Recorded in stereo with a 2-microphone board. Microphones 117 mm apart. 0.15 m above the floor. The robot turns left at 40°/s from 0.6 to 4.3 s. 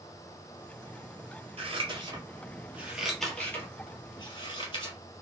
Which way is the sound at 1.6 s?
60° right (ahead or behind).